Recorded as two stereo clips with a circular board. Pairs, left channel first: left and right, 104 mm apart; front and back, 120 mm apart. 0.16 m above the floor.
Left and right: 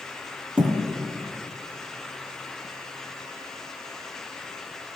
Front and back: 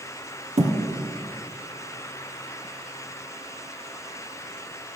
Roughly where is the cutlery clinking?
No cutlery clinking in this recording.